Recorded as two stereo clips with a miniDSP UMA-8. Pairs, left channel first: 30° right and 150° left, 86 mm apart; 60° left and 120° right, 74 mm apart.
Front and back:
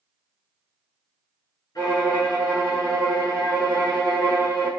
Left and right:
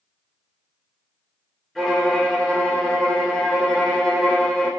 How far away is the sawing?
No sawing in this recording.